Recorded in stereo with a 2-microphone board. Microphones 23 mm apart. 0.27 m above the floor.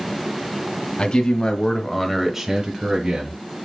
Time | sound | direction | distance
1.0 | a man speaking | 50° left (ahead or behind) | 1.7 m